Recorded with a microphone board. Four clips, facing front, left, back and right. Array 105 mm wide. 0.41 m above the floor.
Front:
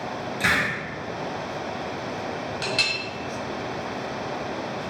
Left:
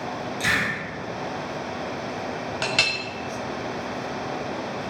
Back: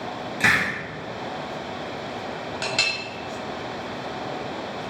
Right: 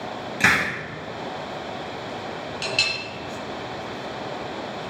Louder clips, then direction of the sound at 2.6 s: Left 3 dB, back 2 dB; 105° left.